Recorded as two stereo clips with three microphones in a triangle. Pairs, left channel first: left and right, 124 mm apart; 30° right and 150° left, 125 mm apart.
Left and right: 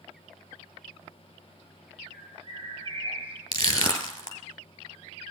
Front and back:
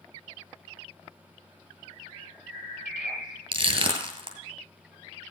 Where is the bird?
125° right, 3 m.